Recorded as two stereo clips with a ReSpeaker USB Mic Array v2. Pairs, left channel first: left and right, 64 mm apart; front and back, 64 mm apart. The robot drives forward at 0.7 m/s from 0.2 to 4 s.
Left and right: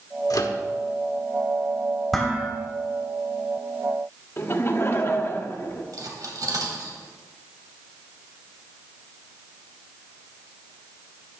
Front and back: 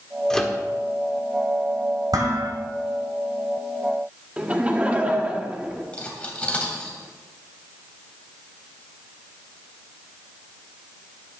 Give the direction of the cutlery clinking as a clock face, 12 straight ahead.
2 o'clock.